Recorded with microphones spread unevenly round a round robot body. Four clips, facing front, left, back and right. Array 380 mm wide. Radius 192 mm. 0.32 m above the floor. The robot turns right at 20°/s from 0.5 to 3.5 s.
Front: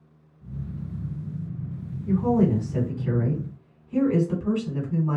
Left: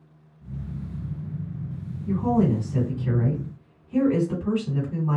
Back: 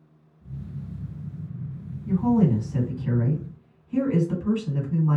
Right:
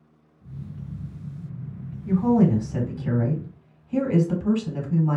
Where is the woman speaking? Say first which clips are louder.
Right 3 dB, even; 90° right, 2 m; by 5.2 s 60° right, 2 m.